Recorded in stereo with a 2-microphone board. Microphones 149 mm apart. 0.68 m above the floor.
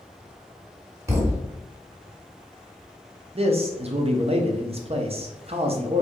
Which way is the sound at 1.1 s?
20° right (ahead or behind).